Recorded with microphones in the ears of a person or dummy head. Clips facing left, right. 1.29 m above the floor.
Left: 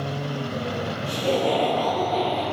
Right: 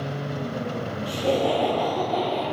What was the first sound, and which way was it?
Laughter, 10° right (ahead or behind).